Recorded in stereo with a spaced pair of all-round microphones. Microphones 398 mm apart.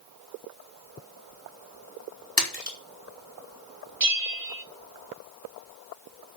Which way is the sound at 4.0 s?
50° right (ahead or behind).